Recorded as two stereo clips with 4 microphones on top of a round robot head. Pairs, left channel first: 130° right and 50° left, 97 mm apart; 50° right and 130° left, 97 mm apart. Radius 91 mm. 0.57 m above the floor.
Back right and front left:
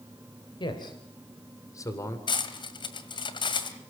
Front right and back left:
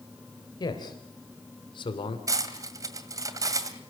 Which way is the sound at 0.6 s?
95° right.